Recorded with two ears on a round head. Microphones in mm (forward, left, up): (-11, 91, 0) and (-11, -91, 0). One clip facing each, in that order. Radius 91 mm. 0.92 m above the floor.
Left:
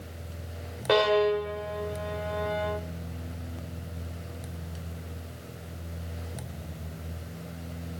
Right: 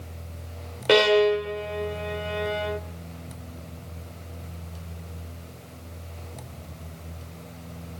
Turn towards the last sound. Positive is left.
turn(degrees=-35)  # may be behind; listen again after turning